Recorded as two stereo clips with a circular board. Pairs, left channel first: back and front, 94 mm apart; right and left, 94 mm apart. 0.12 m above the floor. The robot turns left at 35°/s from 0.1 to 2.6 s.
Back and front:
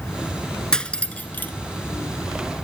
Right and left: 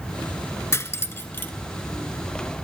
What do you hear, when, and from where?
0.7 s cutlery clinking: 105° right, 0.8 m; by 1.5 s 135° right, 0.8 m